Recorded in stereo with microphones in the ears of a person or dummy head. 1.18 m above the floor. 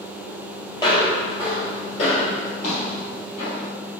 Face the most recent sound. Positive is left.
turn(degrees=60)  # may be behind; listen again after turning